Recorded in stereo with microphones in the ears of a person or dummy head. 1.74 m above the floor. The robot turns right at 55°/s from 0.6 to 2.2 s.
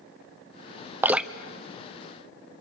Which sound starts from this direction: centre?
Dripping, at 1.0 s.